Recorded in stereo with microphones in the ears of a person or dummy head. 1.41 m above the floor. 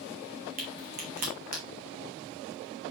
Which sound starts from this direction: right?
A crack, at 0.6 s.